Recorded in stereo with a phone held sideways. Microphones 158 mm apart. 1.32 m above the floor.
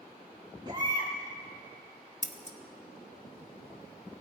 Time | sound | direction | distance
0.7 | a baby crying | 30° right (ahead or behind) | 4.5 m
2.2 | scissors | 50° left (ahead or behind) | 0.9 m